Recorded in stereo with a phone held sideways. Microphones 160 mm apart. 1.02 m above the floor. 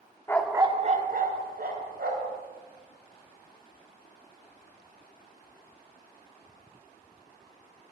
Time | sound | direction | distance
0.3 | a dog barking | 15° left (ahead or behind) | 0.6 m